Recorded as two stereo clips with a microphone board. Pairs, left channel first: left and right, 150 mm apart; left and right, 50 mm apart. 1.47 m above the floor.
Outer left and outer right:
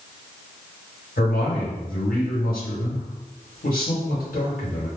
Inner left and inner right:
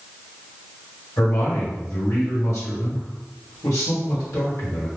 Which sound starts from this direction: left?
A man speaking, at 1.2 s.